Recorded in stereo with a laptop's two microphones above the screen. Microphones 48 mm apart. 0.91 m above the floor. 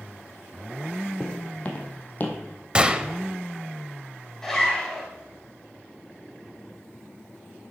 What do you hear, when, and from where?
1.2 s footsteps: 20° left (ahead or behind), 2 m; by 2.4 s 40° left (ahead or behind), 2 m
2.8 s a gunshot: 20° right (ahead or behind), 0.7 m
4.4 s a zipper: 10° left (ahead or behind), 3 m